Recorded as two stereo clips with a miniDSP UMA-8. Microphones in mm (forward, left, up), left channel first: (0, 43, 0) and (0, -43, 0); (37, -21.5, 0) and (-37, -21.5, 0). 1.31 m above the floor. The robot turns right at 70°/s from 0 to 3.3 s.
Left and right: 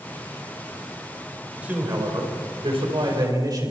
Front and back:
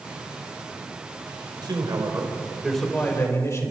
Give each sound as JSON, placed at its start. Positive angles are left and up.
{"t": 1.6, "sound": "a man speaking", "azimuth_deg": -165, "distance_m": 4.5}